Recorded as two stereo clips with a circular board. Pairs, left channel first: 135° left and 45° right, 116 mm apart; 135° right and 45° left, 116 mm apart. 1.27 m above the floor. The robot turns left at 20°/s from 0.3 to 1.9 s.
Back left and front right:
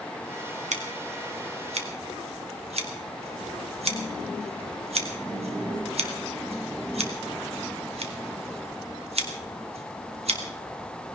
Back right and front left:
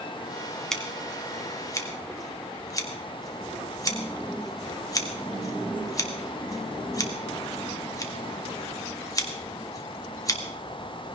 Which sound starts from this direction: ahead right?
Scissors, at 0.7 s.